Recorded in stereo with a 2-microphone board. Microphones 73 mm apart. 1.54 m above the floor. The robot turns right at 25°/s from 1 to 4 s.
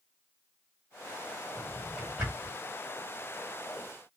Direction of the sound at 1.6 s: 20° right (ahead or behind).